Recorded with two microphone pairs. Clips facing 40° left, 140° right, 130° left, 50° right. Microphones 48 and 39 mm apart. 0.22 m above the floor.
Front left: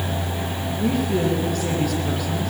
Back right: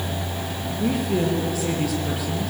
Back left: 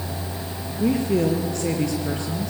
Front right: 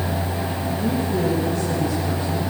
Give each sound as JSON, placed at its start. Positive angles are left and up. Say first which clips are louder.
{"t": 0.8, "sound": "a woman speaking", "louder": "front left 1 dB, back left 3 dB", "azimuth_deg": 135, "distance_m": 4.5}